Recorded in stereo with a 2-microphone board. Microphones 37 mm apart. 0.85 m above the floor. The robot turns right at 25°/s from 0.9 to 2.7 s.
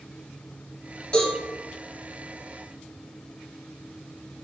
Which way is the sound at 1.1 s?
25° left (ahead or behind).